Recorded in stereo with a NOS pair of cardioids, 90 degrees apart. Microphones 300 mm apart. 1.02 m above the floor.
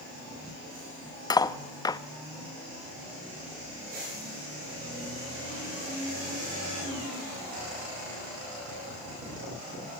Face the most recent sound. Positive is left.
turn(degrees=15)